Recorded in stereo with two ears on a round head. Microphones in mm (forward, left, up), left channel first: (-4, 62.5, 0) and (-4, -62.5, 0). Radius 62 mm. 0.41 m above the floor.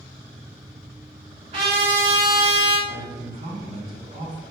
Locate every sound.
1.5 s a trumpet: 45° right (ahead or behind), 1.8 m
2.9 s a man speaking: 30° right (ahead or behind), 0.8 m